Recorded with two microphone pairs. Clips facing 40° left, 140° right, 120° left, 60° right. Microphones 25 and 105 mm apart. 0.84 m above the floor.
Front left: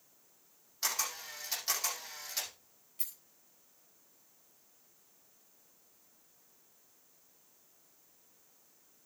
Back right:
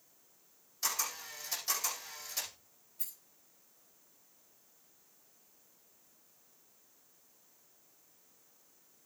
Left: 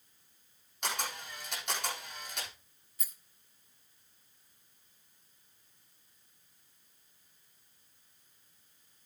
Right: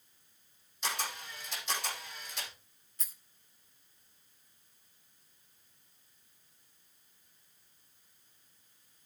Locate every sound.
0.8 s a camera shutter: 90° left, 9.5 m
3.0 s a rattle: 35° left, 3.5 m